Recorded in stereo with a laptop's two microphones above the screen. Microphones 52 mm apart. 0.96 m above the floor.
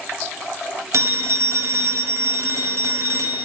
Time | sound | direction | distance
0.9 | a phone ringing | 70° right (ahead or behind) | 0.5 m